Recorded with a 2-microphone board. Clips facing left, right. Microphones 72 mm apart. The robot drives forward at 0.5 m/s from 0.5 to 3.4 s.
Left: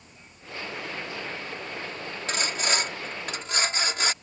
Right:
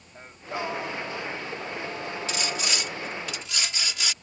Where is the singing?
65° right (ahead or behind); by 2.8 s 85° right.